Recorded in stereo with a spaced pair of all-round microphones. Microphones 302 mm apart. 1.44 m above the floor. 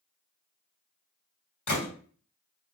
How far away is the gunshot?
About 2 m.